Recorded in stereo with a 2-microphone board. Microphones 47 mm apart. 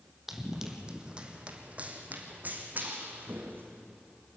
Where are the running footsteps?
10° right (ahead or behind), 2 m; by 3.8 s 45° right (ahead or behind), 3.5 m.